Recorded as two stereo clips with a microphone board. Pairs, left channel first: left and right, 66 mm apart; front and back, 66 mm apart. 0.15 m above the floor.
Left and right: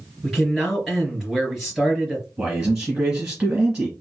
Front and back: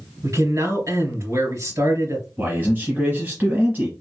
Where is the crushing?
No crushing in this recording.